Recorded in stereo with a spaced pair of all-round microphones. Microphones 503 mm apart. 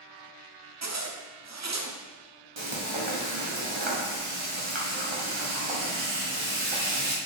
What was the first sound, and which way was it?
A zipper, 35° right (ahead or behind).